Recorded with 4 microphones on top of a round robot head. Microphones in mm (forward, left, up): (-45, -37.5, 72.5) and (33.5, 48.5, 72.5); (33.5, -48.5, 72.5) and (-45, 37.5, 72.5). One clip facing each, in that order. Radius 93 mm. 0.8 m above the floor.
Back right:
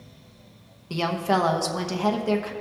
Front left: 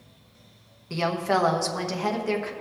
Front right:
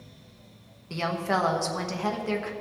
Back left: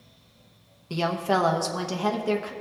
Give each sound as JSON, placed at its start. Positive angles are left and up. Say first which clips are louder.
{"t": 0.9, "sound": "a woman speaking", "louder": "back right 1 dB, back left 3 dB", "azimuth_deg": 180, "distance_m": 1.0}